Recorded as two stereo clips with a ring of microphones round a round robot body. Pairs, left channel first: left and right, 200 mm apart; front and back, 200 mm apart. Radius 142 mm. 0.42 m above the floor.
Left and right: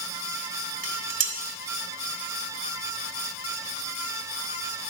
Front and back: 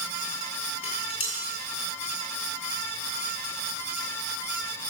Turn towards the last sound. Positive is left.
turn(degrees=-70)